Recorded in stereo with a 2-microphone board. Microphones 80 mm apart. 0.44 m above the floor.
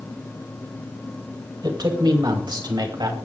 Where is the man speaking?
55° right (ahead or behind), 2.5 m; by 3.1 s 60° right (ahead or behind), 3 m.